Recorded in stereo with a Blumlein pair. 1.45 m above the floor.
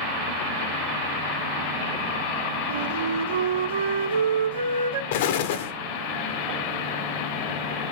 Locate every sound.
2.7 s a flute: 65° right, 0.8 m
5.1 s an explosion: 50° left, 0.5 m